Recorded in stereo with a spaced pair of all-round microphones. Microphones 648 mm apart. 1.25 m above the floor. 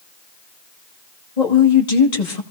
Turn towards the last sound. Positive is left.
turn(degrees=80)